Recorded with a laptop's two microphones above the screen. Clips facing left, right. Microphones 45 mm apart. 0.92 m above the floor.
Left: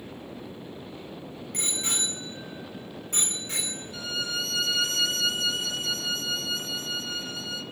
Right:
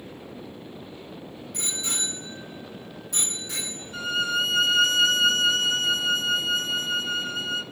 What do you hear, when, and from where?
1.5 s a bicycle bell: 55° left (ahead or behind), 6 m; by 4.3 s 40° left (ahead or behind), 7.5 m
3.9 s a violin: 35° right (ahead or behind), 1.0 m